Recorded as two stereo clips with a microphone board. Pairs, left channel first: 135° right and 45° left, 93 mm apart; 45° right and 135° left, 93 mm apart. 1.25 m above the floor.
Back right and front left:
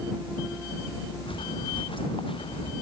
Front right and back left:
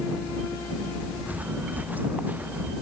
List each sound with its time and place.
1.3 s footsteps: 155° right